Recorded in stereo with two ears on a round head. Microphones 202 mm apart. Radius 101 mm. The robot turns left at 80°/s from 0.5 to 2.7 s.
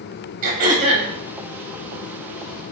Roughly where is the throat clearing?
Right.